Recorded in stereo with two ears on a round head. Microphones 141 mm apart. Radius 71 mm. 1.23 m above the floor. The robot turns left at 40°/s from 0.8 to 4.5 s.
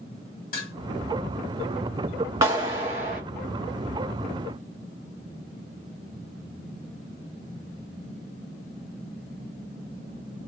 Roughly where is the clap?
Ahead.